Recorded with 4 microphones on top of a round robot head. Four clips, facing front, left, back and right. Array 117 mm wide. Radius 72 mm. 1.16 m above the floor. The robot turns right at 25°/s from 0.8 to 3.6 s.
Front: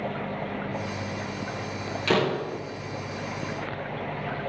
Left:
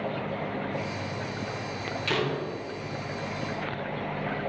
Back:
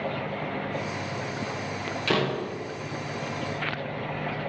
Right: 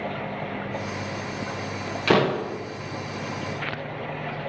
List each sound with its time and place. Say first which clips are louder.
2.1 s a door slam: right 9 dB, front 3 dB; 80° right, 0.7 m; by 2.6 s 70° right, 0.7 m